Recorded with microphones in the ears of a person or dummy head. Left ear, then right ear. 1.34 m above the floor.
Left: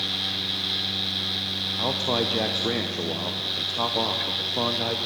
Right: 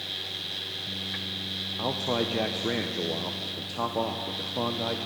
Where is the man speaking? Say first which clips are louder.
Left 3 dB; 5° left (ahead or behind), 0.6 m.